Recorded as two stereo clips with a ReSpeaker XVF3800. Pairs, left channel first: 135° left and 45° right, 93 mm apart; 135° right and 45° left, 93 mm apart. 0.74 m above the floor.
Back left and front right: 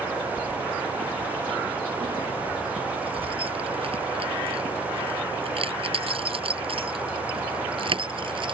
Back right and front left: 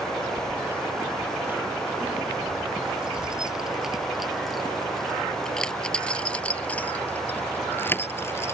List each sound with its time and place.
0.4 s keys jangling: 20° right; by 8.5 s 75° right